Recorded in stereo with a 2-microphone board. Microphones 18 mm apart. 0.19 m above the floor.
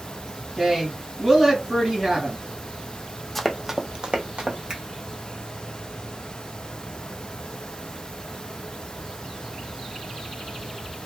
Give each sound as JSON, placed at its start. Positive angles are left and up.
{"t": 0.6, "sound": "a woman speaking", "side_deg": -20, "distance_m": 2.0}
{"t": 3.4, "sound": "running footsteps", "side_deg": 5, "distance_m": 0.6}
{"t": 4.7, "sound": "a finger snap", "side_deg": -45, "distance_m": 1.3}